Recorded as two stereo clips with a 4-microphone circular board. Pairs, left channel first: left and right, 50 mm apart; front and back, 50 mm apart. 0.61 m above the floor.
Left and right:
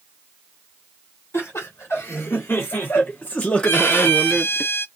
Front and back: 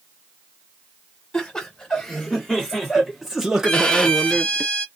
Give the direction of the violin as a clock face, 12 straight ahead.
10 o'clock.